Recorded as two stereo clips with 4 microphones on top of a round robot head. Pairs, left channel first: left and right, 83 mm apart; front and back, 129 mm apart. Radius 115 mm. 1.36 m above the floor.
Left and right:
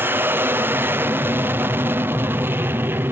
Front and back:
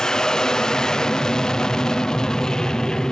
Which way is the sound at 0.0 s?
80° right.